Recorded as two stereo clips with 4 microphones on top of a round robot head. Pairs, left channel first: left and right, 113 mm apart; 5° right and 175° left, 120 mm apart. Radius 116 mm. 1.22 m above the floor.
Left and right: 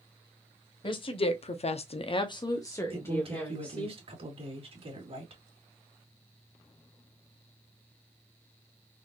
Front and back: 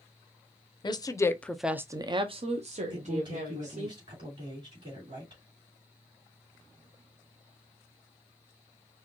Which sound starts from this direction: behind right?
A man speaking, at 2.9 s.